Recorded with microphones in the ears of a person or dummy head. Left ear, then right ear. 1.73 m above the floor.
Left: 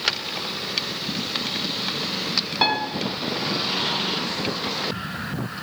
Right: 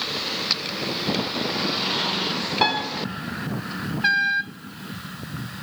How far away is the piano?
About 0.6 m.